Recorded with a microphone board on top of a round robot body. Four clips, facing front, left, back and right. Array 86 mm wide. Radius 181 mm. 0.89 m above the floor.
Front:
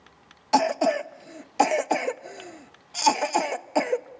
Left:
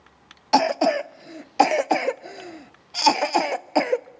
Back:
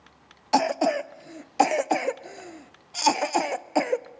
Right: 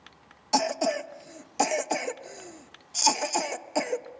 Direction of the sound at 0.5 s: 95° left.